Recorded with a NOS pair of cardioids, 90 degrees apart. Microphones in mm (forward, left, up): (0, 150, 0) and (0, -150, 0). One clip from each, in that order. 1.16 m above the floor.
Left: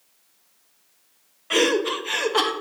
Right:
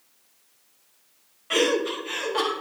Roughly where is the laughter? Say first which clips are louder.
Left 2 dB; ahead.